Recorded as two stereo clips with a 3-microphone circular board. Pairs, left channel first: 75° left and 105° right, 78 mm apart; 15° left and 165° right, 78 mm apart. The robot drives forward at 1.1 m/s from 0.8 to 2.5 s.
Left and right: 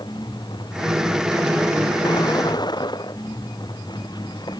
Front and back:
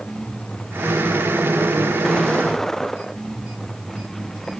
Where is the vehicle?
95° left; by 4.6 s 100° left.